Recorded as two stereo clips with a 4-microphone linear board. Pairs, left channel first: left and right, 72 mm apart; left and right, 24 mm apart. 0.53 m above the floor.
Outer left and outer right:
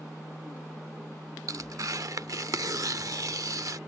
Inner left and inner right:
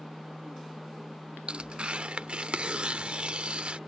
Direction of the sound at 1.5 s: 55° right (ahead or behind).